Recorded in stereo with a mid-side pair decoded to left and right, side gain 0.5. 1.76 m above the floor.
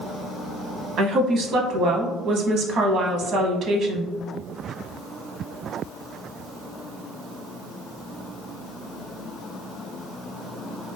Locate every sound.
1.0 s a woman speaking: 60° right, 0.8 m